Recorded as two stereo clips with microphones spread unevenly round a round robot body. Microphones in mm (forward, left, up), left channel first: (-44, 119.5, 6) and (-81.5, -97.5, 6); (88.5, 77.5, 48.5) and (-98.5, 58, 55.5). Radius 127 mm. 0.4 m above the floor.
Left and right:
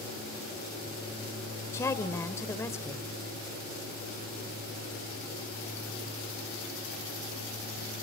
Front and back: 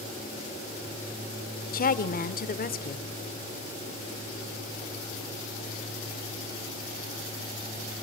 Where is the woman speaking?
5° left, 1.1 m.